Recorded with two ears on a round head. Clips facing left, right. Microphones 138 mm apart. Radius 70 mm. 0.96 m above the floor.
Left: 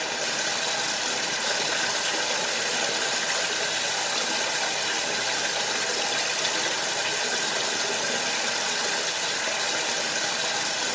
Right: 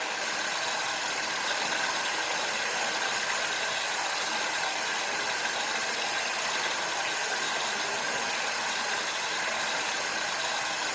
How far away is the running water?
About 1.1 m.